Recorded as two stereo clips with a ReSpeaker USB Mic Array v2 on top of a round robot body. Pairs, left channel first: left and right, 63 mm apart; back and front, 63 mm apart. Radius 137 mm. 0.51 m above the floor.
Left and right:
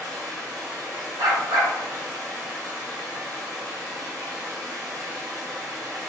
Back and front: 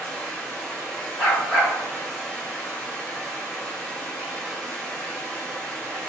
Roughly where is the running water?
Right.